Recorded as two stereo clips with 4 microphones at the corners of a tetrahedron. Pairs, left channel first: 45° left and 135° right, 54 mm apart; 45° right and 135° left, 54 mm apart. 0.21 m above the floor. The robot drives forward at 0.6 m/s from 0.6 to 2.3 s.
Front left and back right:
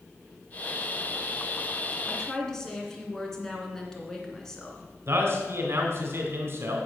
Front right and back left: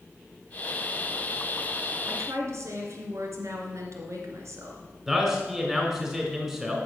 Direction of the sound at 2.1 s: 120° left.